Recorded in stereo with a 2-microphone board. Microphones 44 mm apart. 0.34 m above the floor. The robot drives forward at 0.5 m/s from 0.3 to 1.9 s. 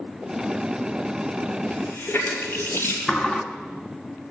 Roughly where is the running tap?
Left.